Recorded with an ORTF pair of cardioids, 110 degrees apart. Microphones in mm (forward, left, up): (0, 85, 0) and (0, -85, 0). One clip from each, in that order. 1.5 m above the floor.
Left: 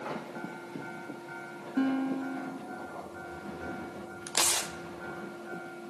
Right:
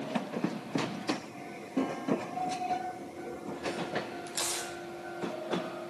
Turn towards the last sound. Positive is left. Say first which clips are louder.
# left 6 dB
turn(degrees=50)